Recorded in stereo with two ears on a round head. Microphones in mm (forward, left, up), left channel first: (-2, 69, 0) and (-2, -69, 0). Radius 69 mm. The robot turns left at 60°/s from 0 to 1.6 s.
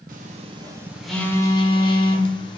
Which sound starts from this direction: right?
A phone buzzing, at 0.1 s.